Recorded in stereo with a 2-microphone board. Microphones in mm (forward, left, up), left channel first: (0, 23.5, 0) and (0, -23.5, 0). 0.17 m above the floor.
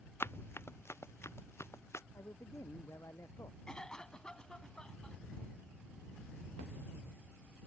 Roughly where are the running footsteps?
Left.